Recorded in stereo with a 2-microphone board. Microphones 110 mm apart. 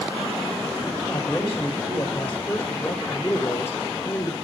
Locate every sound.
1.0 s a man speaking: 20° left (ahead or behind), 2.5 m; by 4.3 s 25° left (ahead or behind), 1.2 m